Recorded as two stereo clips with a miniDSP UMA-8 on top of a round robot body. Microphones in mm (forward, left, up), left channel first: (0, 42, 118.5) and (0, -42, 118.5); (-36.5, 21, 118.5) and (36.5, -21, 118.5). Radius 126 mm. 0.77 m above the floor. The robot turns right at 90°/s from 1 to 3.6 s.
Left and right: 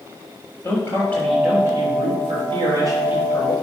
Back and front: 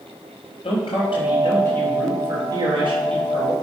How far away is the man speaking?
About 3 m.